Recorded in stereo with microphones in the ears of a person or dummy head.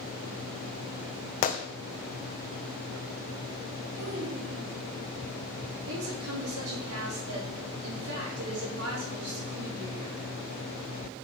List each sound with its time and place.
1.4 s a gunshot: 40° left (ahead or behind), 0.9 m
3.9 s a child speaking: 65° right (ahead or behind), 3 m
5.9 s a woman speaking: 80° right, 4 m